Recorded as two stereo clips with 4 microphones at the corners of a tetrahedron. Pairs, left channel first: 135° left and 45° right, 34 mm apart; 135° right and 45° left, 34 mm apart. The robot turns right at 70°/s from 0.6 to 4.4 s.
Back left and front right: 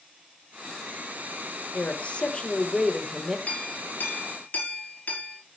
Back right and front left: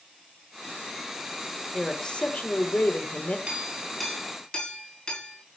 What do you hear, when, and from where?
1.7 s a man speaking: 145° left, 1.7 m; by 3.4 s 100° right, 1.7 m
3.5 s a clink: 95° left, 6 m; by 5.4 s 160° left, 6 m